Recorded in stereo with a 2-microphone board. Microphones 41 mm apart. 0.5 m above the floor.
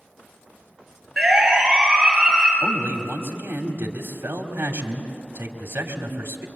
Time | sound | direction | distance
1.2 | a siren | centre (ahead or behind) | 8.5 m
2.6 | a man speaking | 65° right (ahead or behind) | 2.5 m